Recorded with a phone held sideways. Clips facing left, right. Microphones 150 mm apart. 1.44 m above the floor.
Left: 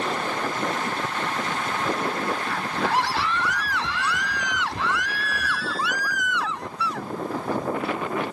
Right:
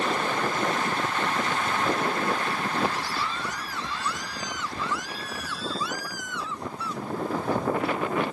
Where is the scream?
75° left (ahead or behind).